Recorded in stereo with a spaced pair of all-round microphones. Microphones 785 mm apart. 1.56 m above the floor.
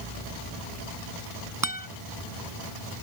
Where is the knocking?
I don't hear knocking.